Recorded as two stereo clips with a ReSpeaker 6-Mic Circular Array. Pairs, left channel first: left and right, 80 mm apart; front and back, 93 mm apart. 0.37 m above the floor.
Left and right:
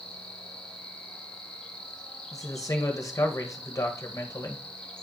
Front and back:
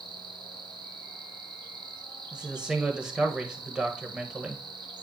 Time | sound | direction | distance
0.0 | an insect | 165° left | 1.2 m
2.3 | a man speaking | 105° left | 1.5 m